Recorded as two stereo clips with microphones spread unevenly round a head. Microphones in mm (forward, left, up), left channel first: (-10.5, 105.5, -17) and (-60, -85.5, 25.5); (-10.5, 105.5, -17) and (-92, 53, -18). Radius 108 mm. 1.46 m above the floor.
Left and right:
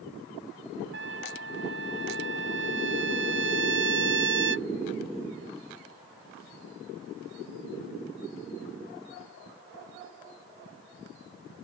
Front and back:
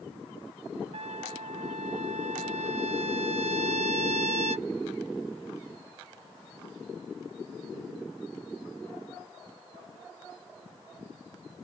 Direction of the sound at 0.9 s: 135° right.